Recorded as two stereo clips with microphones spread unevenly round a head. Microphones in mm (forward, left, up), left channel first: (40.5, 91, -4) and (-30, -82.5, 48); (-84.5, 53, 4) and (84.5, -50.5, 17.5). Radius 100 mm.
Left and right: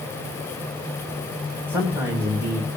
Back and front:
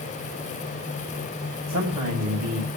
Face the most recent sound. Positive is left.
turn(degrees=-30)